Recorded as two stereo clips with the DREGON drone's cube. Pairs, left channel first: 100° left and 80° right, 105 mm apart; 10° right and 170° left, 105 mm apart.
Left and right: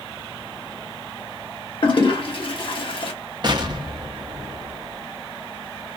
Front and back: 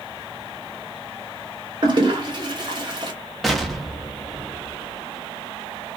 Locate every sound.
1.8 s a toilet flushing: 130° left, 0.9 m
3.4 s an explosion: 100° right, 0.7 m